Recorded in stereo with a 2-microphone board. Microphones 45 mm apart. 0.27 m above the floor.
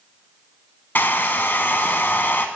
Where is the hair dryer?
50° left (ahead or behind), 0.6 m.